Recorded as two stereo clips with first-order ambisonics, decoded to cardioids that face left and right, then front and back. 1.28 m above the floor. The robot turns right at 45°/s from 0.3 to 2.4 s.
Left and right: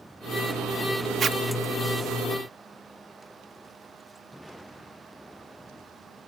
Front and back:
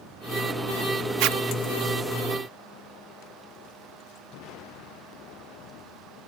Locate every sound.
1.2 s a zipper: 155° right; by 1.4 s 145° right